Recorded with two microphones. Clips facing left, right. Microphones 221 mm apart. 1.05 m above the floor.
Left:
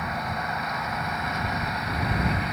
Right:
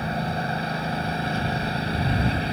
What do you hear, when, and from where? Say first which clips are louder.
0.0 s a lawn mower: right 5 dB; 30° right (ahead or behind)